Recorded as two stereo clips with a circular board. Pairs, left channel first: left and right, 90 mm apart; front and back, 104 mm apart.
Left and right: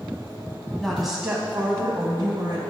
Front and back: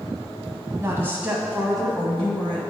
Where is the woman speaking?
170° left, 1.2 m; by 2.6 s 70° right, 1.5 m.